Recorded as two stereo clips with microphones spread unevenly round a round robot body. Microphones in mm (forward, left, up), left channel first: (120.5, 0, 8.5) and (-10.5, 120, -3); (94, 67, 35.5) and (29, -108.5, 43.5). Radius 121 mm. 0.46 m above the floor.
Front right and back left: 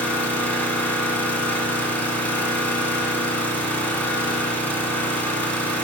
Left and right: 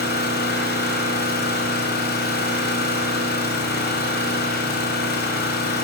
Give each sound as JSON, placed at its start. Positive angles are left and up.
{"t": 0.0, "sound": "an engine running", "azimuth_deg": 35, "distance_m": 2.5}